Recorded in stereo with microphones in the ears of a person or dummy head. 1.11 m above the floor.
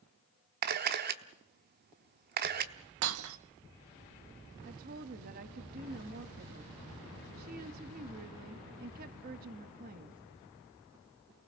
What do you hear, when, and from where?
0.6 s a camera shutter: 50° right (ahead or behind), 1.0 m
3.0 s breaking glass: 85° right, 1.1 m
4.7 s a woman speaking: 45° right (ahead or behind), 1.6 m